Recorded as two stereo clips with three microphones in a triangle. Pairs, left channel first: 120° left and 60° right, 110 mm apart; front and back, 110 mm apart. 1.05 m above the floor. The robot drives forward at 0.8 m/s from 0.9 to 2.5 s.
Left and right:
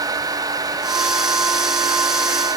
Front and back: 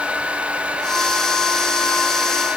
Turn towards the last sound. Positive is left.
No sound to turn to.